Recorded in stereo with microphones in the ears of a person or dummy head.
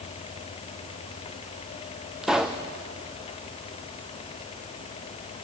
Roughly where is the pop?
Centre.